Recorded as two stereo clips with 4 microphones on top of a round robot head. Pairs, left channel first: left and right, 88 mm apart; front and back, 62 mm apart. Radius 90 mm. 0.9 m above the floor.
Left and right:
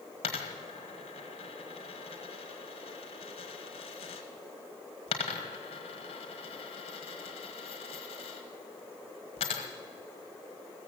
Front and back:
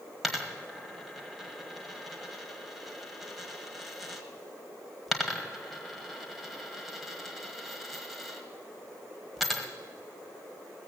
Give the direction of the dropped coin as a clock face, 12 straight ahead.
9 o'clock.